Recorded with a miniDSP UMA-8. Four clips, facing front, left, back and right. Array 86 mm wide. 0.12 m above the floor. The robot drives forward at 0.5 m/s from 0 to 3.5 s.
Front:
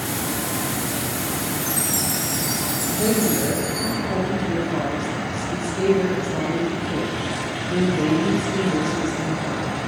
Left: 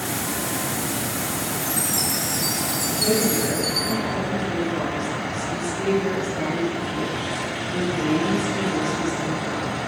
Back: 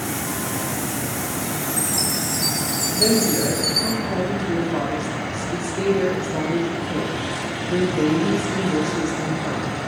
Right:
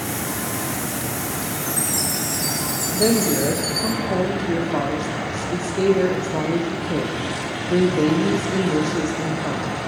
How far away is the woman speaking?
About 4.5 m.